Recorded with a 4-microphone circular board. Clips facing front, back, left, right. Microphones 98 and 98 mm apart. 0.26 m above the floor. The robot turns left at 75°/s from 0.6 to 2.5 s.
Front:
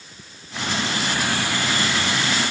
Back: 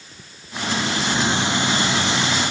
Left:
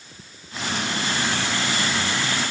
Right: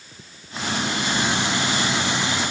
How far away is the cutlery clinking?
I don't hear cutlery clinking.